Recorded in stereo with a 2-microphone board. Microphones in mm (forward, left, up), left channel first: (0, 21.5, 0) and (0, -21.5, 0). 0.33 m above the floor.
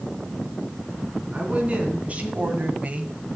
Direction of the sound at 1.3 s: 30° right (ahead or behind).